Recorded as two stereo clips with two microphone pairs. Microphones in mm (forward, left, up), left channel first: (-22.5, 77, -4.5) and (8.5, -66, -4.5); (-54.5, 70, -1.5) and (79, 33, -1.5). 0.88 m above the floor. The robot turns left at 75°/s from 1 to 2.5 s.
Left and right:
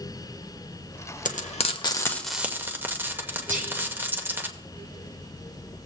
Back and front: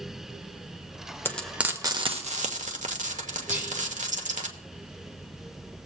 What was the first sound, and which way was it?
Frying, 90° left.